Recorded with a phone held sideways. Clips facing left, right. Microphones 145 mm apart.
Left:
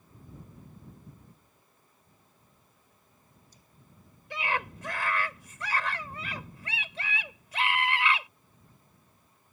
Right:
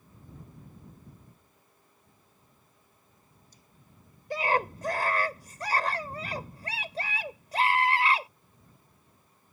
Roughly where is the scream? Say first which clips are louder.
Right 6 dB; right.